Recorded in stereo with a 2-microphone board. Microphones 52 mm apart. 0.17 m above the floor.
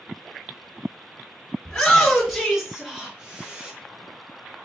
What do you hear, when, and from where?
1.6 s a shout: 10° left (ahead or behind), 1.9 m; by 3.7 s 25° right (ahead or behind), 1.7 m